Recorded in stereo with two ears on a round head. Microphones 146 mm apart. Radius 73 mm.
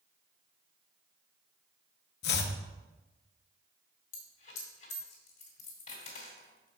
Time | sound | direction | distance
2.2 | chopping | 65° left (ahead or behind) | 0.8 m
4.1 | a dropped coin | 50° left (ahead or behind) | 2 m